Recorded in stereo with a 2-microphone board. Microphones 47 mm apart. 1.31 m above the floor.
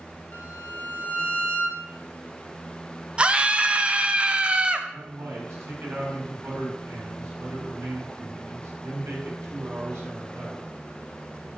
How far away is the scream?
About 0.8 m.